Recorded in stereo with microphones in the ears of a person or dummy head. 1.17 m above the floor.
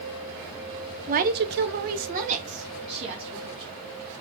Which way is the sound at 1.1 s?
30° right (ahead or behind).